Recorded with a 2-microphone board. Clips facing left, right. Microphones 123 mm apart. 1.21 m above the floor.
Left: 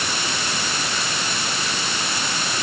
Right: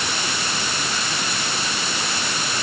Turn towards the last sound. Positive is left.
No sound to turn to.